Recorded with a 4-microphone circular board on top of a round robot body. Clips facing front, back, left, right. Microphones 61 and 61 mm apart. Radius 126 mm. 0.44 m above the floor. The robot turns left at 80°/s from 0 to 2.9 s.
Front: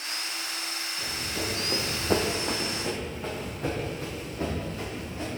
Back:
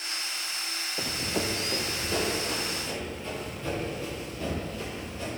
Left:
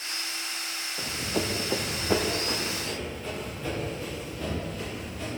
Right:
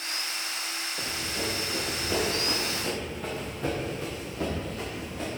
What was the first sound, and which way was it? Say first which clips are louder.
Running footsteps: back 4 dB, left 4 dB; straight behind.